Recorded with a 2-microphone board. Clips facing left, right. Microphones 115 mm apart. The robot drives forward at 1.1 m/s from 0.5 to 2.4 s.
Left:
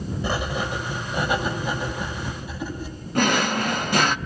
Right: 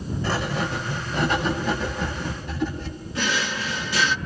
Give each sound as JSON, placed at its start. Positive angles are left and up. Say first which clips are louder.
{"t": 0.2, "sound": "writing", "louder": "right 1 dB", "side_deg": 15, "distance_m": 4.0}
{"t": 3.1, "sound": "a drawer", "louder": "left 6 dB", "side_deg": 55, "distance_m": 0.6}